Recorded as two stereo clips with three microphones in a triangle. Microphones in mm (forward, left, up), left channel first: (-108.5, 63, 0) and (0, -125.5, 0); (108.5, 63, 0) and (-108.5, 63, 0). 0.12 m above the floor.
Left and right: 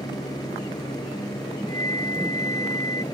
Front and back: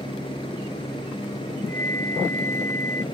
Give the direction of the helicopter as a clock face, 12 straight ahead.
10 o'clock.